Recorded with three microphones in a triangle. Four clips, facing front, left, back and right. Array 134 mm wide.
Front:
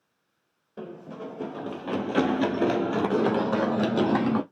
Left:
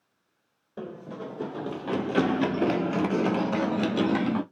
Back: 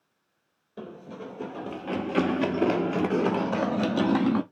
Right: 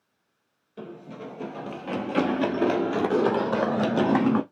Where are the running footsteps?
75° left, 1.7 m; by 4.4 s 75° right, 1.8 m.